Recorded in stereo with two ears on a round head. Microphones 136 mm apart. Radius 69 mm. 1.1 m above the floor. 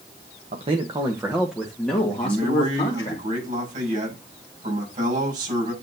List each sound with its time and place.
0.5 s a man speaking: 45° right (ahead or behind), 1.1 m; by 3.2 s 25° left (ahead or behind), 2.5 m
2.2 s a man speaking: 55° right (ahead or behind), 6 m